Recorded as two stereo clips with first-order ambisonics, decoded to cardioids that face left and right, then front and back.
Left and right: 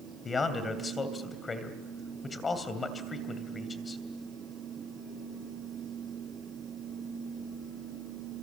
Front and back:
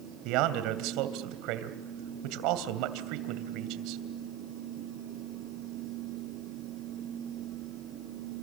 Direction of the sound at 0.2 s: 160° left.